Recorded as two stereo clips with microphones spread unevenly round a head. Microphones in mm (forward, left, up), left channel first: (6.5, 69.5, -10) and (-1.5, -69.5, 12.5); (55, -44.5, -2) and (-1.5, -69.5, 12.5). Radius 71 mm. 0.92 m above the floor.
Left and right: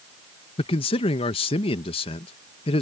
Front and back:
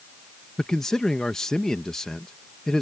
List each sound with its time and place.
0.6 s a man speaking: 95° left